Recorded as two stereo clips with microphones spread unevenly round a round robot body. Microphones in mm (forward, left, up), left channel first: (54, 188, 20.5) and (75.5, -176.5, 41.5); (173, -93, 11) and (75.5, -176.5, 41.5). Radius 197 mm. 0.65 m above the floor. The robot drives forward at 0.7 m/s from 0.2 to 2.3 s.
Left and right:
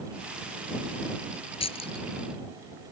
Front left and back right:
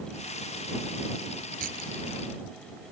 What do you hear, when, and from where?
1.6 s keys jangling: 170° left